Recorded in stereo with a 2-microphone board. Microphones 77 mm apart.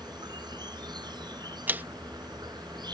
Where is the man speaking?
25° right (ahead or behind).